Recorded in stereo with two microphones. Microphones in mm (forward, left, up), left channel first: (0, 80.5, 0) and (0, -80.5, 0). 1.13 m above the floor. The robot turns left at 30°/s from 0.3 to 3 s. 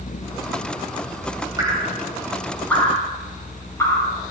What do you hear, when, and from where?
1.6 s dripping: 25° right (ahead or behind), 7 m; by 4.1 s 20° left (ahead or behind), 7 m